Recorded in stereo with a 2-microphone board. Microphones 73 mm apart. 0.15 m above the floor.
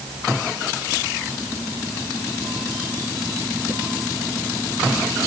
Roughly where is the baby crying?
I don't hear a baby crying.